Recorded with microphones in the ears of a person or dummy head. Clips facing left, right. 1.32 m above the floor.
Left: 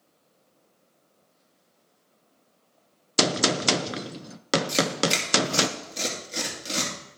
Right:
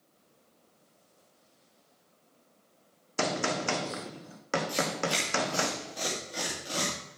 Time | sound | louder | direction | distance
3.2 | a gunshot | left 6 dB | 50° left (ahead or behind) | 0.6 m
4.7 | tearing paper | left 6 dB | 35° left (ahead or behind) | 2.5 m